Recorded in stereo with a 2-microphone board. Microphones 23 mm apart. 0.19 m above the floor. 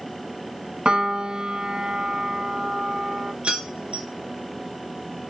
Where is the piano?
40° right (ahead or behind), 0.7 m.